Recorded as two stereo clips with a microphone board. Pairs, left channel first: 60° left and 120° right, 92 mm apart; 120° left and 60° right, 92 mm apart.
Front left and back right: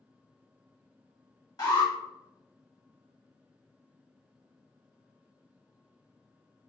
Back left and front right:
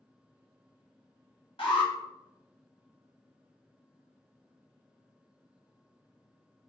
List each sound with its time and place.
1.6 s an alarm: 105° left, 1.2 m